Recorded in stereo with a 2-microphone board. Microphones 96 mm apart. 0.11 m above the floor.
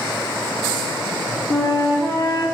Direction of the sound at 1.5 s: 50° left (ahead or behind).